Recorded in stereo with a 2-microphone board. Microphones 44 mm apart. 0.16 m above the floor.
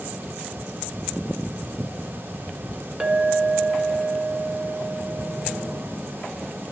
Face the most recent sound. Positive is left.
turn(degrees=-25)  # may be behind; listen again after turning